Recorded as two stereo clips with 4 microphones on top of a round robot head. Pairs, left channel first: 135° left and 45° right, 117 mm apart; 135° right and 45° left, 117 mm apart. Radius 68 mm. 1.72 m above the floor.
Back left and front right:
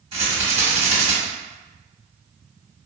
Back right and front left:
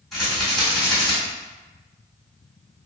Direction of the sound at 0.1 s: 50° right.